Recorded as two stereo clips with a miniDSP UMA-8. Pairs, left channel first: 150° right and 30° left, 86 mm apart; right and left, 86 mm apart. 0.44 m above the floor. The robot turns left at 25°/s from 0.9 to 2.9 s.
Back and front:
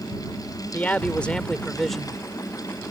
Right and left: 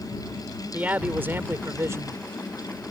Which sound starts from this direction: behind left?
A man speaking, at 0.7 s.